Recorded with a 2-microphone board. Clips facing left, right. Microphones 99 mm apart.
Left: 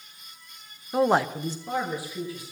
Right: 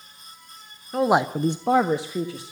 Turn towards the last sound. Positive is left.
turn(degrees=-70)  # may be behind; listen again after turning